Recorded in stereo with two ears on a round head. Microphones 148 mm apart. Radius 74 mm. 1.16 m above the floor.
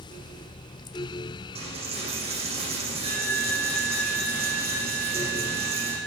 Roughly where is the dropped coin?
Right.